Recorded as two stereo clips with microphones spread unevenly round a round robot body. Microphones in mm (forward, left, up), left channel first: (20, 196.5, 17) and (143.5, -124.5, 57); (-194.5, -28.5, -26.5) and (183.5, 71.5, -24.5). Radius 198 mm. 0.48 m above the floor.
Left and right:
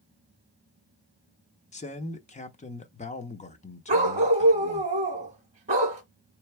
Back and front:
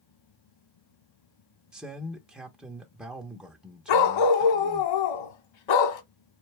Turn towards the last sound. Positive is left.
turn(degrees=-140)